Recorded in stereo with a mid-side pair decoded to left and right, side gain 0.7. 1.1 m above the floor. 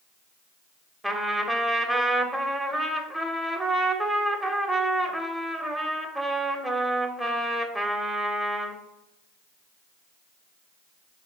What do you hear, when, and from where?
1.0 s a trumpet: 10° right, 0.7 m